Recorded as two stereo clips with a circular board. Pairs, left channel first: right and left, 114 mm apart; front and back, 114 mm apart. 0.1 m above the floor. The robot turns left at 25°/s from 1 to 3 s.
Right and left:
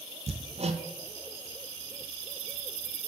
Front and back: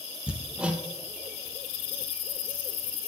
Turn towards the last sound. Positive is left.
turn(degrees=50)